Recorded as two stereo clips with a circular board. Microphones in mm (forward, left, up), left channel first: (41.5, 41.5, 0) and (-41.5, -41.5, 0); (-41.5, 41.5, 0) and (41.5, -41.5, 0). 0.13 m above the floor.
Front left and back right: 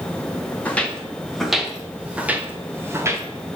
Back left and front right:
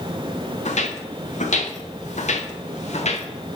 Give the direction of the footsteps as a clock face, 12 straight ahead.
8 o'clock.